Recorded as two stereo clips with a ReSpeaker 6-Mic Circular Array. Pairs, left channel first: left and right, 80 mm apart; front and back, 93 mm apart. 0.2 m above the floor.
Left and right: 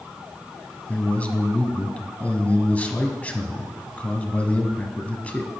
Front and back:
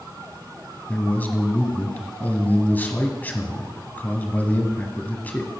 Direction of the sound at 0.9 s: 45° left.